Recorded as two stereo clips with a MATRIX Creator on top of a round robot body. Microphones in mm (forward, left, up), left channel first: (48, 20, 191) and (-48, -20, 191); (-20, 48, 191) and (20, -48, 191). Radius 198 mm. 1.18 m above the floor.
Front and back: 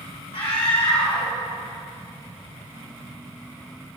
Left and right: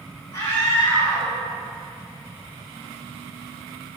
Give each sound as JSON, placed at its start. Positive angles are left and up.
{"t": 0.3, "sound": "a scream", "azimuth_deg": 50, "distance_m": 2.5}